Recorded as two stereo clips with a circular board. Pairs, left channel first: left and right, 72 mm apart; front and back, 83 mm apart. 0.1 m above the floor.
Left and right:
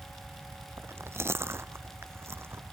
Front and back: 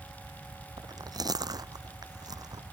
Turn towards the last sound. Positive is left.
turn(degrees=-145)